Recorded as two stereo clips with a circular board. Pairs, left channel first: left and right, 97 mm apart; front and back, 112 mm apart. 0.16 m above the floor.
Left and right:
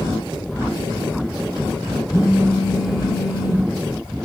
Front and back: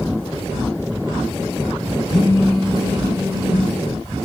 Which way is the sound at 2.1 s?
50° left.